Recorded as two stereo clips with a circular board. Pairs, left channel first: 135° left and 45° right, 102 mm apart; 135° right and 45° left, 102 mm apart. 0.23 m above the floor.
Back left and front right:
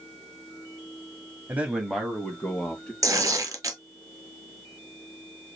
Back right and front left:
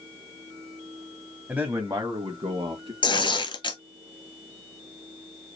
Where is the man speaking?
10° right, 1.0 m; by 2.9 s 65° left, 2.0 m.